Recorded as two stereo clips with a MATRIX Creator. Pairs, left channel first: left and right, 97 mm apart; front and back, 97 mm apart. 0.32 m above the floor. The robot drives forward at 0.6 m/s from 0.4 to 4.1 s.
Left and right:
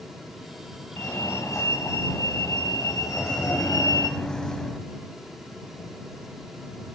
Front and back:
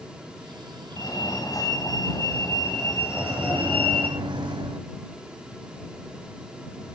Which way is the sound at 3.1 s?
160° left.